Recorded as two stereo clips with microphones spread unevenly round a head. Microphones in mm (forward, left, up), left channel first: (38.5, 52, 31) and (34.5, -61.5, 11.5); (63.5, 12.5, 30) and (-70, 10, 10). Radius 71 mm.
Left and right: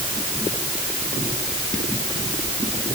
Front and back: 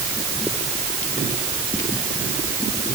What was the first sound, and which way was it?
Only background noise.